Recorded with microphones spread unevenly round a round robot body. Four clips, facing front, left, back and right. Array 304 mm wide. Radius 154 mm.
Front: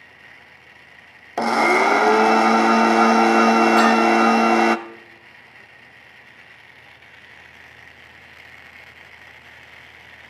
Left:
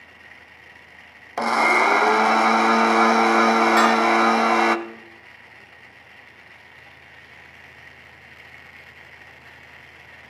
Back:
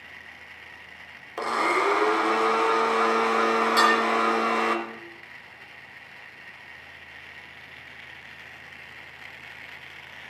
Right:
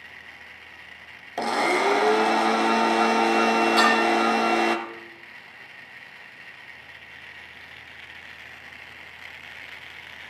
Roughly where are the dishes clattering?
Behind left.